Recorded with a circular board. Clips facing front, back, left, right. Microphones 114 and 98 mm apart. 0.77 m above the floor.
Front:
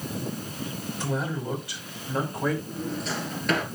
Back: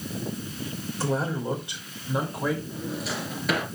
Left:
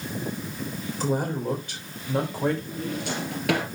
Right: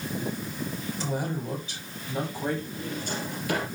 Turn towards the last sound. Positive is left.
turn(degrees=95)